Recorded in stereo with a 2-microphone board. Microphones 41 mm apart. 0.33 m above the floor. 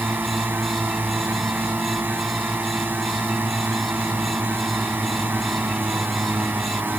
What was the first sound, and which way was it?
A drone, 55° right (ahead or behind).